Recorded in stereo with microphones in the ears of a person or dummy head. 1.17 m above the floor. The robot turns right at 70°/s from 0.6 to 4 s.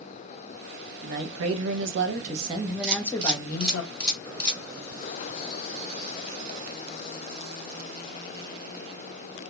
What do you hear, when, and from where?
1.0 s a man speaking: 130° right, 0.6 m; by 3.8 s 65° left, 0.6 m
2.8 s a camera shutter: 55° right (ahead or behind), 1.4 m; by 4.6 s 15° left (ahead or behind), 1.4 m